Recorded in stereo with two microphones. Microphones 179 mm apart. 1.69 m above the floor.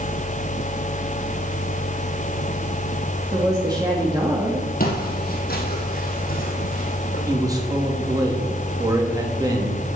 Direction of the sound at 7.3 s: 20° right (ahead or behind).